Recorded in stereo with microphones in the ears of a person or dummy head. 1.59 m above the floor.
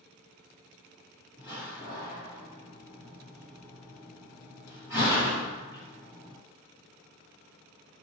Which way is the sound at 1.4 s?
15° right (ahead or behind).